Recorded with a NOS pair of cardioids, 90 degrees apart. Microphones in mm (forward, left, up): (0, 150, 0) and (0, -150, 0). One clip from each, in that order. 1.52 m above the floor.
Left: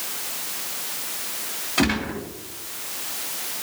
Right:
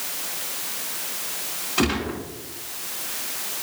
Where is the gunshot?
20° left, 4 m.